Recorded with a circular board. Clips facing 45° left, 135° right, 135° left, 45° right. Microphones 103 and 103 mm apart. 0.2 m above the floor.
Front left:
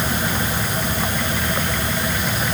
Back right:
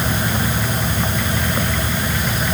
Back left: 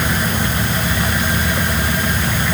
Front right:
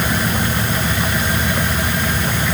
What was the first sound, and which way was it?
Only background noise.